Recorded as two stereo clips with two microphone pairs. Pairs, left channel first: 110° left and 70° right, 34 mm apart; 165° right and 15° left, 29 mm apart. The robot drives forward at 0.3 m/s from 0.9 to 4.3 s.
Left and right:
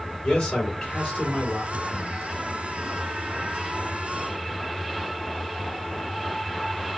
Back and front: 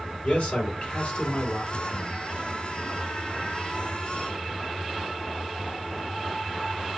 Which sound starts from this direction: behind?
A man speaking, at 0.2 s.